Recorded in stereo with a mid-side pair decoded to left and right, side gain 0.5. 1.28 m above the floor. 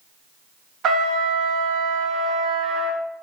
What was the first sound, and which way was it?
A trumpet, 60° right.